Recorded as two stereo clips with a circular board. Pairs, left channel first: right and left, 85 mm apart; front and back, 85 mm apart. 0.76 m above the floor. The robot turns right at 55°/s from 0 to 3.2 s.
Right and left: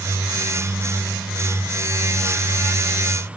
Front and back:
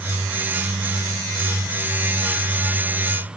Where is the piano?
No piano in this recording.